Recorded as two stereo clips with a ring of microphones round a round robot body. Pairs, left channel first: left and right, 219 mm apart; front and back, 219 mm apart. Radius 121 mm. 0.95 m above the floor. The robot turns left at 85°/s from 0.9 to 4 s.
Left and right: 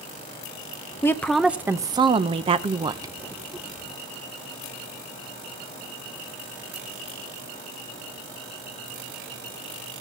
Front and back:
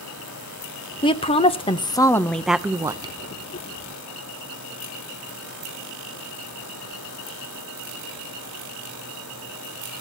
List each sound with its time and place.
1.0 s a woman speaking: 30° left, 0.7 m; by 3.1 s 150° right, 0.7 m